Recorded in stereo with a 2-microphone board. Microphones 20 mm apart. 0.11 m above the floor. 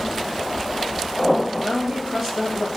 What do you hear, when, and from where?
1.6 s a woman speaking: 15° right (ahead or behind), 2.5 m